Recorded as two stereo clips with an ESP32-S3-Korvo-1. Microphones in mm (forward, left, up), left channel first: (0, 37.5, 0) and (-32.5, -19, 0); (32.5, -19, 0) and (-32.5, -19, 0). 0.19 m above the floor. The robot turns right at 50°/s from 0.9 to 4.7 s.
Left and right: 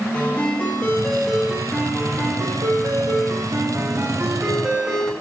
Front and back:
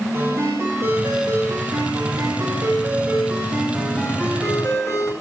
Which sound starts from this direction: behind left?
A ringtone, at 0.1 s.